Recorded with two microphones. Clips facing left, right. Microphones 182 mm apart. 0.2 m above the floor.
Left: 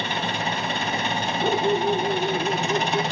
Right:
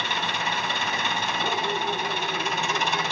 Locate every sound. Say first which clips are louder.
0.0 s an engine running: left 3 dB; 35° left (ahead or behind), 3.5 m
1.4 s a dog barking: left 9 dB; 20° left (ahead or behind), 2.5 m